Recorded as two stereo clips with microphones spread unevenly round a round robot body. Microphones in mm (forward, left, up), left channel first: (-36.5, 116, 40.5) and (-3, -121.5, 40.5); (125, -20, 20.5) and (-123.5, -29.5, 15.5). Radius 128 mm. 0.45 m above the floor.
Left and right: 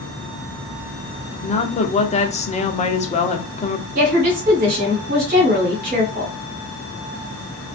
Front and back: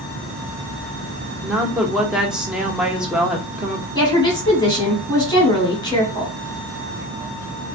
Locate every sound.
1.4 s a woman speaking: 100° left, 0.8 m
4.0 s a woman speaking: 65° right, 1.5 m